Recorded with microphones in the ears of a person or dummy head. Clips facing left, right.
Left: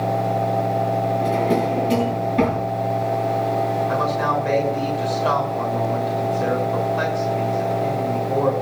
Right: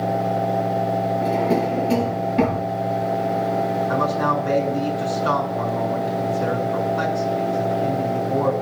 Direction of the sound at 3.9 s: 35° left (ahead or behind).